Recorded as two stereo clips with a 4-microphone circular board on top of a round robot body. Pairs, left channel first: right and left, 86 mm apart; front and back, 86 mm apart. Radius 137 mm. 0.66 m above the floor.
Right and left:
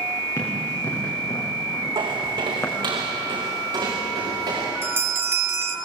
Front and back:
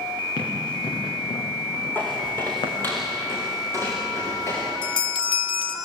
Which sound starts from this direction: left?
Footsteps, at 1.9 s.